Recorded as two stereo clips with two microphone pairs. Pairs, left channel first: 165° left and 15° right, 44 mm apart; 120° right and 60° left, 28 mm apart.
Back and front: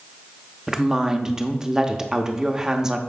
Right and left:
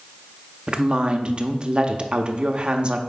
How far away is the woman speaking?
About 0.8 m.